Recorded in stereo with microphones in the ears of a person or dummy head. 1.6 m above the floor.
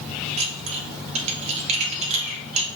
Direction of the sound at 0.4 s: 40° right (ahead or behind).